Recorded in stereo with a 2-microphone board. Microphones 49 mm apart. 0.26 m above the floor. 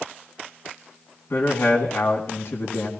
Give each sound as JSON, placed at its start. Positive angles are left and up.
{"t": 1.3, "sound": "a man speaking", "side_deg": 60, "distance_m": 2.0}